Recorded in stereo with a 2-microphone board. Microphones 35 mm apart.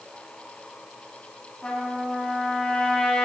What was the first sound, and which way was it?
A trumpet, 30° left (ahead or behind).